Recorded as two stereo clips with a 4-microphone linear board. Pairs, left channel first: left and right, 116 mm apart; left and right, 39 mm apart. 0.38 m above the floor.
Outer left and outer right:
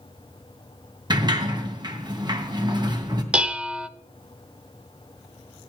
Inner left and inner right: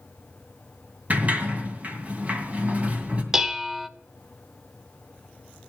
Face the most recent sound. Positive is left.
turn(degrees=-10)  # may be behind; listen again after turning